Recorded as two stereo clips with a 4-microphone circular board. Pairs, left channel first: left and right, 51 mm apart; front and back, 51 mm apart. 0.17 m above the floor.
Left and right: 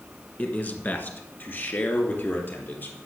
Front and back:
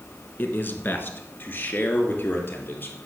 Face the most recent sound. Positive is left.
turn(degrees=50)